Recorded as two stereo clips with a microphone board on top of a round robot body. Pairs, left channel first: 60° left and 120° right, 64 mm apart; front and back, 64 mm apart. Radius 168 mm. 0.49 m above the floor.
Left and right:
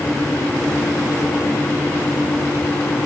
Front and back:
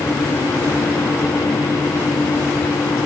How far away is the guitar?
I don't hear a guitar.